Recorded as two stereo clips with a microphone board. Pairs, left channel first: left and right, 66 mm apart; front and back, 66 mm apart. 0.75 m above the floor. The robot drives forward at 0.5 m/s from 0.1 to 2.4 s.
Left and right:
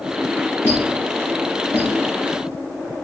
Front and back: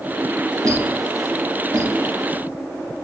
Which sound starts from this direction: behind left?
A squeak, at 0.6 s.